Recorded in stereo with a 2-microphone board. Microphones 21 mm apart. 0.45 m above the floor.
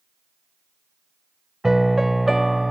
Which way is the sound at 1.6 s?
10° right (ahead or behind).